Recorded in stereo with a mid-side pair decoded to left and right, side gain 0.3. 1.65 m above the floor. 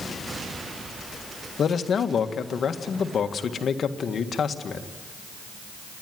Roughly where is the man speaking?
Left.